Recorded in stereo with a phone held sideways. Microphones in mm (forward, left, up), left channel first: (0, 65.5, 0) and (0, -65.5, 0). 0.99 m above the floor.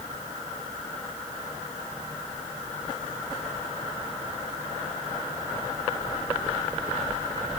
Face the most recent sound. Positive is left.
No sound to turn to.